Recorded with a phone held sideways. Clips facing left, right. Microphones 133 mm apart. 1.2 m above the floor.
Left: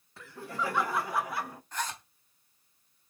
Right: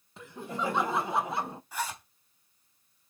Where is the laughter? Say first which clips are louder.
Right 1 dB; 20° right (ahead or behind), 1.8 m; by 1.6 s 25° right (ahead or behind), 0.8 m.